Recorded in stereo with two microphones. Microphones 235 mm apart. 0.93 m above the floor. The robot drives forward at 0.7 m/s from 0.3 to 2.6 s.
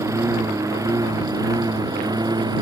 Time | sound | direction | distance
0.0 | a lawn mower | 10° right (ahead or behind) | ?